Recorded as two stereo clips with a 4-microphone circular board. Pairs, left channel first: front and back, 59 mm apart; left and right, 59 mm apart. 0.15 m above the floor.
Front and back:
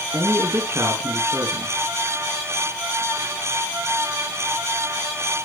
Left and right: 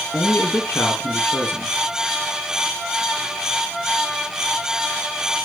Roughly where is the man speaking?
Behind left.